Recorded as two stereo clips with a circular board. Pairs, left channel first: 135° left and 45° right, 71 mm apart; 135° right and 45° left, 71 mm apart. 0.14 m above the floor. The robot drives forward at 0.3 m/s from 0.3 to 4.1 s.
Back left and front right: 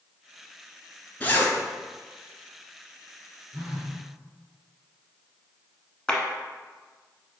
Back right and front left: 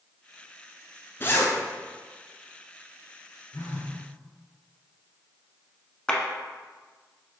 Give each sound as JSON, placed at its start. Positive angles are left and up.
{"t": 1.2, "sound": "a zipper", "azimuth_deg": -170, "distance_m": 0.8}
{"t": 3.5, "sound": "a phone buzzing", "azimuth_deg": -115, "distance_m": 1.1}
{"t": 6.1, "sound": "a clap", "azimuth_deg": -175, "distance_m": 0.8}